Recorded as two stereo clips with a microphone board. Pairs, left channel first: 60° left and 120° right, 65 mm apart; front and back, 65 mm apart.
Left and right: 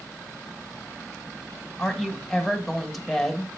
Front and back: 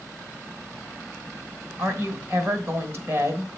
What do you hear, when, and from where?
1.8 s a woman speaking: 145° left, 1.7 m